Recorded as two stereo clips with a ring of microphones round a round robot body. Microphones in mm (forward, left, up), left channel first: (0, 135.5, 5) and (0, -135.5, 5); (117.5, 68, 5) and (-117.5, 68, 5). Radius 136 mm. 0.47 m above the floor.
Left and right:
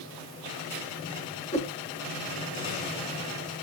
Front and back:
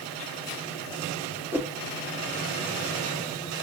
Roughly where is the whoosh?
Left.